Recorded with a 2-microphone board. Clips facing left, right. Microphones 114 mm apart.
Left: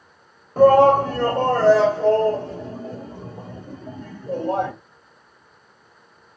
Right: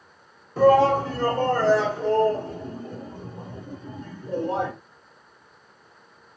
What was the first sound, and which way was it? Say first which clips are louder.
A shout: left 4 dB; 40° left (ahead or behind).